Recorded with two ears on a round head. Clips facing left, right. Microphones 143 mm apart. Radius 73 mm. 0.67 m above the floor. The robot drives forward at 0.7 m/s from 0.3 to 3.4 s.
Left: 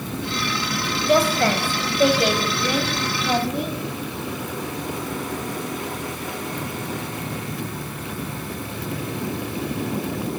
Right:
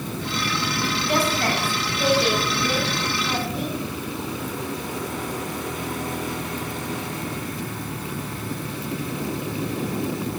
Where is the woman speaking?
70° left (ahead or behind), 4 m; by 3.8 s 50° left (ahead or behind), 4.5 m.